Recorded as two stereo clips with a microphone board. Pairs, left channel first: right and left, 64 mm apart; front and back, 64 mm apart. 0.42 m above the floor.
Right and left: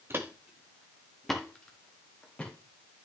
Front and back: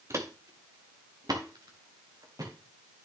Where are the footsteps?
140° left, 1.2 m; by 2.5 s 160° right, 3.5 m.